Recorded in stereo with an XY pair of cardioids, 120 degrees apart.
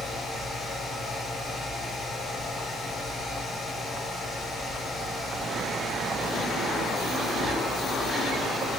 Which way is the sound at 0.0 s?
30° left.